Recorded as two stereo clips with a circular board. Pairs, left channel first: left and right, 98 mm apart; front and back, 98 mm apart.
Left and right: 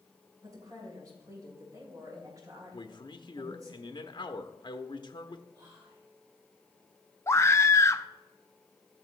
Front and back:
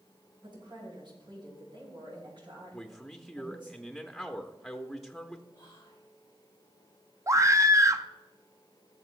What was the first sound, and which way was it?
A woman speaking, 145° right.